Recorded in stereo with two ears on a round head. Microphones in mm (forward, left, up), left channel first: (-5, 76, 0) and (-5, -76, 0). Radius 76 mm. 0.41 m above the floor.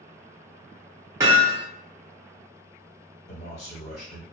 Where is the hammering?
20° right (ahead or behind), 1.4 m.